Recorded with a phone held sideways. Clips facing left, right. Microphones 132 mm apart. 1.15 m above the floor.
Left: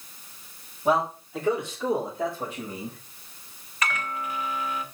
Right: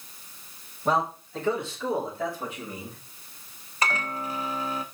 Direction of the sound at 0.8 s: 5° left (ahead or behind).